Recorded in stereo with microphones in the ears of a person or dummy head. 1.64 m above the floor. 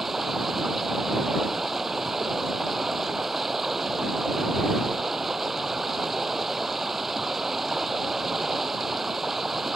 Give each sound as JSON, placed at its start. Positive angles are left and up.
{"t": 0.0, "sound": "running water", "side_deg": 0}